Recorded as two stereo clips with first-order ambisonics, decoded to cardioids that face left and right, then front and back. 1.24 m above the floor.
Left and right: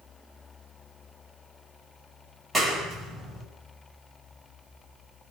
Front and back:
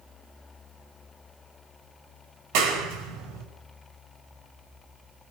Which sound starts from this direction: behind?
A clap, at 2.5 s.